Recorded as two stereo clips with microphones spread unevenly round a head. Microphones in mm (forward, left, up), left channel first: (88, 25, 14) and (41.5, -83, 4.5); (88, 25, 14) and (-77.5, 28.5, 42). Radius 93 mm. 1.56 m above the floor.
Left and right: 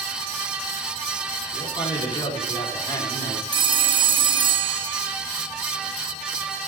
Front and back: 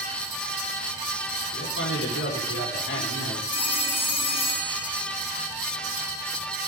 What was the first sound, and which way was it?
A man speaking, 15° left.